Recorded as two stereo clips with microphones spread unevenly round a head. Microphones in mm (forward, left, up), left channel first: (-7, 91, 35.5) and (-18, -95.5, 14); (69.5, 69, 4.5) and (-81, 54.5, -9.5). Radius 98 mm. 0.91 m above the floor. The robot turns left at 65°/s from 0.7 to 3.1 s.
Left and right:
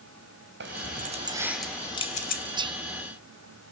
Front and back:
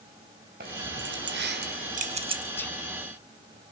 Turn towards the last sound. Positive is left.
turn(degrees=-105)